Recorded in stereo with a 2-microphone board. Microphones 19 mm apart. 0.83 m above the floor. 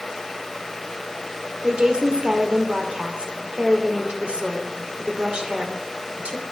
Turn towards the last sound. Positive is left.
turn(degrees=-65)  # may be behind; listen again after turning